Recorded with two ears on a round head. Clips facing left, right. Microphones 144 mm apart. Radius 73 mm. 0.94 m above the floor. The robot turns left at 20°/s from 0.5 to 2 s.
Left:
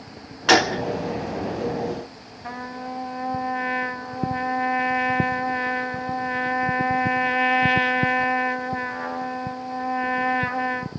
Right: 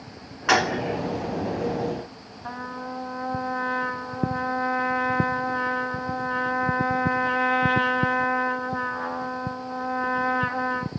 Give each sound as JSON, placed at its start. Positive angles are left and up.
{"t": 0.5, "sound": "a gunshot", "side_deg": 40, "distance_m": 1.0}
{"t": 2.4, "sound": "a trumpet", "side_deg": 15, "distance_m": 0.9}